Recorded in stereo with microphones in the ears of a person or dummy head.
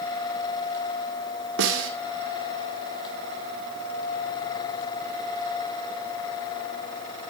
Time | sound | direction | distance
1.6 | a snare drum | 60° right (ahead or behind) | 2 m